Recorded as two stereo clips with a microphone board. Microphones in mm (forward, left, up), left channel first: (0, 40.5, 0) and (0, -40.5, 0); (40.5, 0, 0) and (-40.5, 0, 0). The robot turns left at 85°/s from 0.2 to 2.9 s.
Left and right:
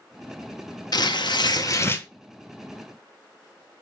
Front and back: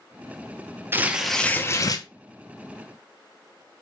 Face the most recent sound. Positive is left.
turn(degrees=-50)